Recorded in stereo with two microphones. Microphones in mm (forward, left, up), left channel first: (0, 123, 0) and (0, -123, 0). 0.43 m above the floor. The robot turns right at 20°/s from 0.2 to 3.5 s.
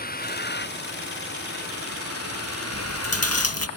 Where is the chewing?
65° left (ahead or behind); by 3.7 s 80° left.